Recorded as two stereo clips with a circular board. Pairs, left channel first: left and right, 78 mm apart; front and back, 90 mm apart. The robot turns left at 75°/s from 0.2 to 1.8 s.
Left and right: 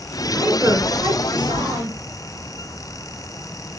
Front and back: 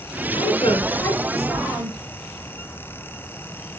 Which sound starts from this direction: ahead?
A woman speaking, at 0.3 s.